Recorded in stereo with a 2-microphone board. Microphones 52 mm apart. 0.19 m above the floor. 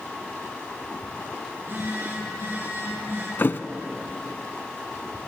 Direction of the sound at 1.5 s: 60° right (ahead or behind).